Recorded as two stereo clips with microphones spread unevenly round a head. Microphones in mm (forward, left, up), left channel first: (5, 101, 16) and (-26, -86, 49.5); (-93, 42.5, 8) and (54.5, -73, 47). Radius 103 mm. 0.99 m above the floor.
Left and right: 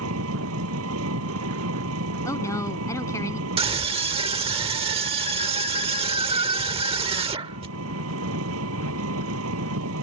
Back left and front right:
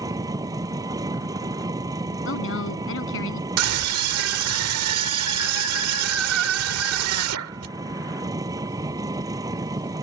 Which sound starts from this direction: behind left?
A woman speaking, at 2.2 s.